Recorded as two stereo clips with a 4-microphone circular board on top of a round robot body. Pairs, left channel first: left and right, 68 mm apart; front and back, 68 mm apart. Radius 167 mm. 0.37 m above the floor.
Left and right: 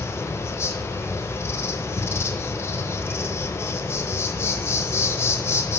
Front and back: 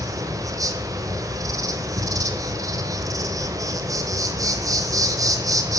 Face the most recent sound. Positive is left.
turn(degrees=140)